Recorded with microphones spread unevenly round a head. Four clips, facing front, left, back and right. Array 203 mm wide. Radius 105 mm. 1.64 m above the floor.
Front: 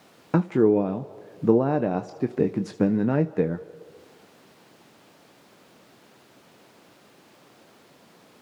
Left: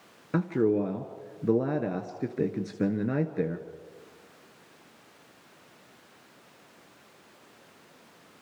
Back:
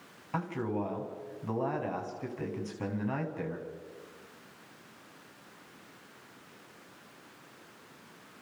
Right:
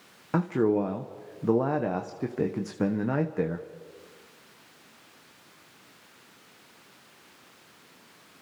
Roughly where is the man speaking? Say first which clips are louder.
Right 1 dB, front 14 dB; ahead.